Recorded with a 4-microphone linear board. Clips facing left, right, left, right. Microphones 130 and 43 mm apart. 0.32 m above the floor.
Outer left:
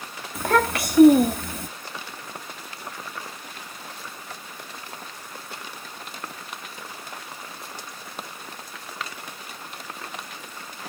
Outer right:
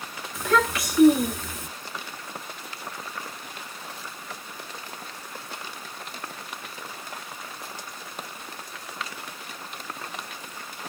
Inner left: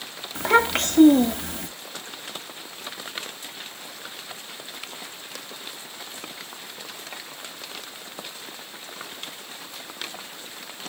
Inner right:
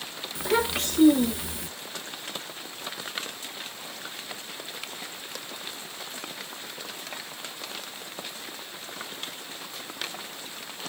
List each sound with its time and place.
0.3 s a child speaking: 55° left (ahead or behind), 0.9 m